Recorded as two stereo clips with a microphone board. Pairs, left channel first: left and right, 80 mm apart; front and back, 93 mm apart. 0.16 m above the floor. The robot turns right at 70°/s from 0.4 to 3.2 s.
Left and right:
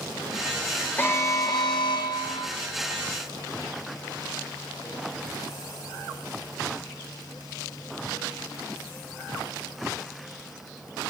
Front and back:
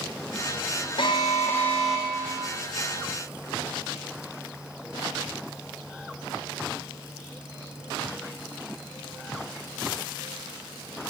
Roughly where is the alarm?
Ahead left.